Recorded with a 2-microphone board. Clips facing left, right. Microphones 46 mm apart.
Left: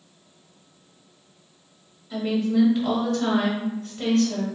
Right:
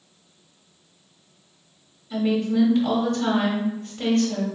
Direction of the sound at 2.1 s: 5° left (ahead or behind).